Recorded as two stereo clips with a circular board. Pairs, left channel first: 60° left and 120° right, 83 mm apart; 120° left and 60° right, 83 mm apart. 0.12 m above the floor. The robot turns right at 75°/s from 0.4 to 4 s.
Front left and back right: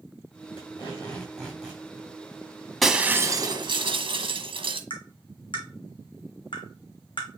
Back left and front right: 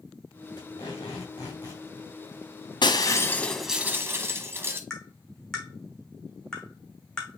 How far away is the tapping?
About 2 m.